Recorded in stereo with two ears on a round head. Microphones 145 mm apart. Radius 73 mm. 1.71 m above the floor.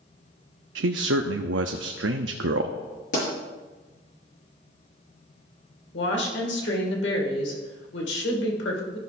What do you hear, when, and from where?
0.8 s a man speaking: 85° right, 0.6 m
3.1 s a pop: 50° left (ahead or behind), 5 m
5.9 s a woman speaking: 85° left, 2 m